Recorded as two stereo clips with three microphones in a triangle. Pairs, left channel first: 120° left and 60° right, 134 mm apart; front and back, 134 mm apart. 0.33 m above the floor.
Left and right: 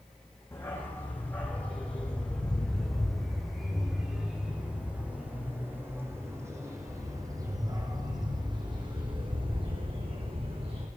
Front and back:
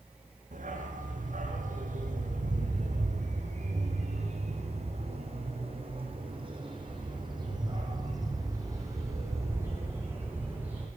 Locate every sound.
0.5 s a dog barking: 165° right, 8 m; by 10.9 s 105° right, 8 m